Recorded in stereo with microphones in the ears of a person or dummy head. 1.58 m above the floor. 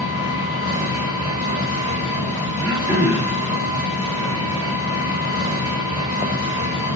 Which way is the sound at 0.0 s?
30° left (ahead or behind).